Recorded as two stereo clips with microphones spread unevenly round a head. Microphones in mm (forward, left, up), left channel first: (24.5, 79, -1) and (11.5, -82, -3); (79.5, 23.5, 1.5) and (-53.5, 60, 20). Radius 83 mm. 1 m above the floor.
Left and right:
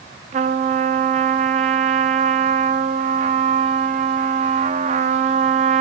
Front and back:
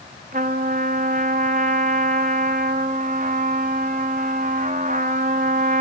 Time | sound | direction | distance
0.3 | a trumpet | 145° right | 1.3 m